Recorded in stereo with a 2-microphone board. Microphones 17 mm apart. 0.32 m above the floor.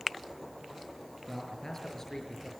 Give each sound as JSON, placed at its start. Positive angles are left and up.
{"t": 1.3, "sound": "a man speaking", "side_deg": 25, "distance_m": 5.5}